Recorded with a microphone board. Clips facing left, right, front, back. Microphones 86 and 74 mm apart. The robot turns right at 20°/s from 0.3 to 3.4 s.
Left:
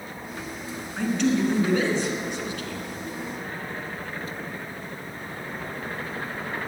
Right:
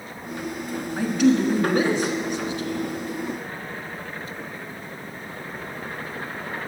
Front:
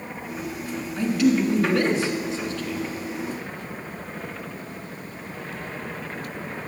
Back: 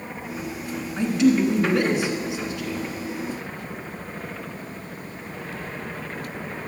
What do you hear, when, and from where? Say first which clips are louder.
1.0 s a man speaking: right 4 dB, back 1 dB; 160° right, 1.2 m; by 2.9 s 120° right, 1.2 m